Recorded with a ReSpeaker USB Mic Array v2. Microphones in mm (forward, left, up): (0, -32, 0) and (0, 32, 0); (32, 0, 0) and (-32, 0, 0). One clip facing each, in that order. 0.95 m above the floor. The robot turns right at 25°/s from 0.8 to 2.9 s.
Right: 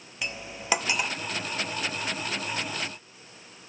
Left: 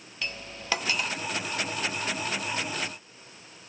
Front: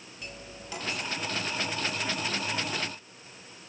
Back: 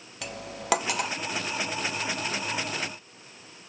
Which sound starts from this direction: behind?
Cutlery clinking, at 0.2 s.